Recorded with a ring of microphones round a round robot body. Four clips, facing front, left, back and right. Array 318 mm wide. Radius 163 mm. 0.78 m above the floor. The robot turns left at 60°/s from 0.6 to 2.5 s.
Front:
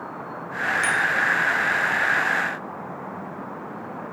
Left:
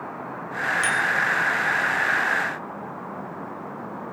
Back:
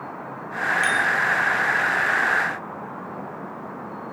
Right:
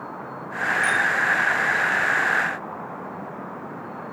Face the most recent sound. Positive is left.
turn(degrees=-15)